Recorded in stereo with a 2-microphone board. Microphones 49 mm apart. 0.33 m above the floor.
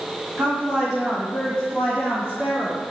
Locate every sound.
0.4 s a woman speaking: 25° right (ahead or behind), 1.9 m; by 2.8 s 45° left (ahead or behind), 2.5 m